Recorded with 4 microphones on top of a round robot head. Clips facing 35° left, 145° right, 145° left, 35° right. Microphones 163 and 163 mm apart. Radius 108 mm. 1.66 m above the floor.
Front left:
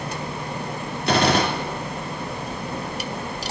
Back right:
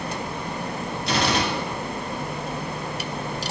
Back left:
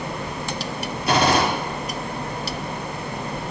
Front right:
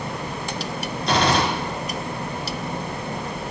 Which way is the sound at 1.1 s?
65° left.